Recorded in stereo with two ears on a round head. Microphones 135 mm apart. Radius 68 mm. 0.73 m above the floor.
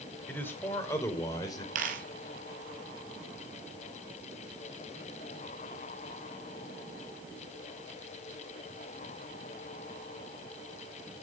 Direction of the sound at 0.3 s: 15° left (ahead or behind).